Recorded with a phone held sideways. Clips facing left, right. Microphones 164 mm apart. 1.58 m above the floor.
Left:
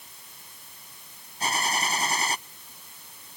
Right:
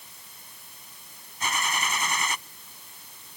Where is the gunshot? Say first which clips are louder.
Left 2 dB; 35° left (ahead or behind).